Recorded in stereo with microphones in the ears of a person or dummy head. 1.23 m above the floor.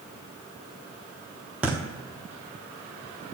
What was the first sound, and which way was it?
A thud, 5° right (ahead or behind).